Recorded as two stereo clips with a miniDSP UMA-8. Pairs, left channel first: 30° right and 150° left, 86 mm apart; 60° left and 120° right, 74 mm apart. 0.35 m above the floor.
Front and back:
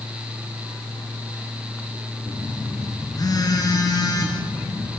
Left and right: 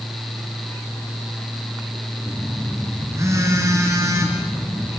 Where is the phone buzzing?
75° right, 4.5 m.